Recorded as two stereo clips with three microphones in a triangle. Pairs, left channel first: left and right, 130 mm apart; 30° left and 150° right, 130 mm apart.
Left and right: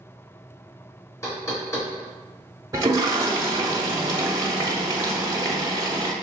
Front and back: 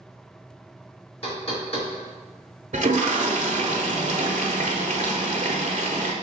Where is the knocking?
25° left, 1.9 m.